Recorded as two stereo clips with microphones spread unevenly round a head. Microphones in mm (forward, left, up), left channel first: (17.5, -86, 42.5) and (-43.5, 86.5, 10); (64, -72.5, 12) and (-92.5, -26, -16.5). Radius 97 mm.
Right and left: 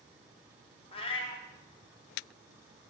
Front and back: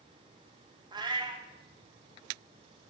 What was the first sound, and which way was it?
A cat meowing, 130° right.